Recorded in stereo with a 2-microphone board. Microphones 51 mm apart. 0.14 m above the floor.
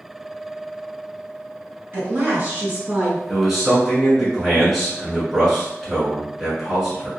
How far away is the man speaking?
About 1.5 m.